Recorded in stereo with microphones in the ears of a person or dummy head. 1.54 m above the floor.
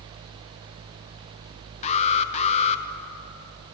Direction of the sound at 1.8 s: 30° left (ahead or behind).